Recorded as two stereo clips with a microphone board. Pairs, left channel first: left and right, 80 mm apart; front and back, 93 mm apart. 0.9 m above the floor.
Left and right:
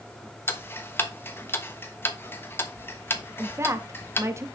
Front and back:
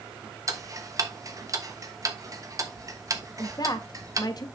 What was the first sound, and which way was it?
Ticking, 140° left.